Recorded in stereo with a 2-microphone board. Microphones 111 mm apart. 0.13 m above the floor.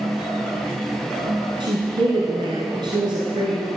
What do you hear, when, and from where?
1.6 s a woman speaking: 45° right (ahead or behind), 1.8 m